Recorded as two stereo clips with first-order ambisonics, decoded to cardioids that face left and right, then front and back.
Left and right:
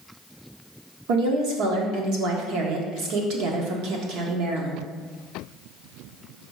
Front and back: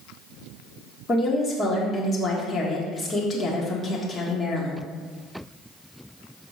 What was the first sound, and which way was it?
A woman speaking, 70° right.